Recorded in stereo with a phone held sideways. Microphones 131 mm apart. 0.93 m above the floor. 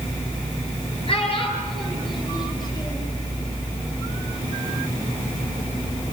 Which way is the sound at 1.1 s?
45° left (ahead or behind).